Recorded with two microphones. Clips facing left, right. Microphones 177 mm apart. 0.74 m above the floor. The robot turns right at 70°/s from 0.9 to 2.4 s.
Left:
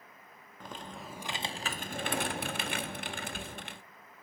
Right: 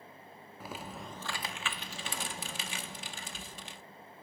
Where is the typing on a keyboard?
10° right, 0.8 m; by 3.8 s 95° left, 0.8 m.